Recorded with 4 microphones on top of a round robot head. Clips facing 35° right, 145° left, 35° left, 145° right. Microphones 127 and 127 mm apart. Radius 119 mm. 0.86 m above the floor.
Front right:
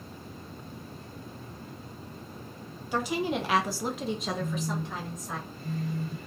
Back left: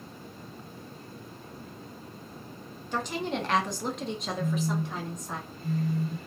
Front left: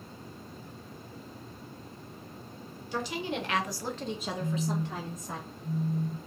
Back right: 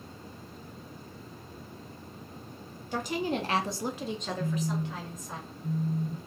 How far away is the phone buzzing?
About 1.1 m.